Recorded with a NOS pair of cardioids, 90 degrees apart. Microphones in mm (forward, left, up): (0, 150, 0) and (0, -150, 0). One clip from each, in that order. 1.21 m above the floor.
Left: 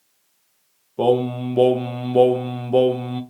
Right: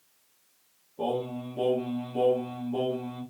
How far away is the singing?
About 0.6 m.